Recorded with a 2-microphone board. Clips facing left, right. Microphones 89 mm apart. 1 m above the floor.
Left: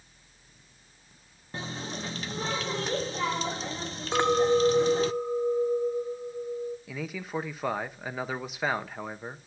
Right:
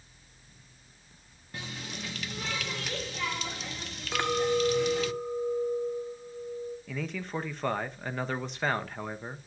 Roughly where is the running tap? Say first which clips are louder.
Left 5 dB; left.